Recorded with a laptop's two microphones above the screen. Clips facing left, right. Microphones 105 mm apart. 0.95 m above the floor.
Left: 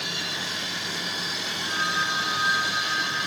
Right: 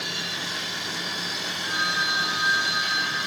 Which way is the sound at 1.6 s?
10° right (ahead or behind).